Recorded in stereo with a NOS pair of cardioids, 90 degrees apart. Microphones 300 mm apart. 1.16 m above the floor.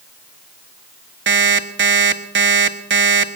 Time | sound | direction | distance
1.3 | an alarm clock | 40° right | 1.3 m